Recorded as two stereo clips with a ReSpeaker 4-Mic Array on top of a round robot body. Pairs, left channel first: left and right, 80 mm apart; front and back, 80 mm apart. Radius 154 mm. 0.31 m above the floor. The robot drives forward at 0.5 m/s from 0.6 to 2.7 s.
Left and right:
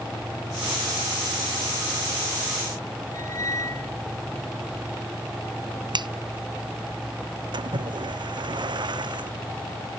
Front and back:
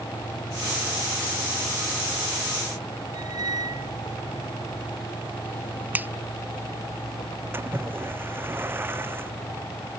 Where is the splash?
115° right.